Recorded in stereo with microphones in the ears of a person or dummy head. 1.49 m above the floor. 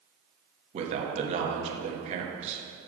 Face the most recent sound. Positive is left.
turn(degrees=-35)  # may be behind; listen again after turning